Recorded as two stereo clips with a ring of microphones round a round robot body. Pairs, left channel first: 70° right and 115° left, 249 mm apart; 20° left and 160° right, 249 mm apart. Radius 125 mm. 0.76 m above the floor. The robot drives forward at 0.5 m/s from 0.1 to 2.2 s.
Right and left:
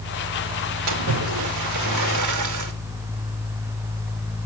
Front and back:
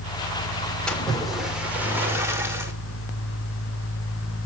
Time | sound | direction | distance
0.9 | a splash | 110° left | 2.5 m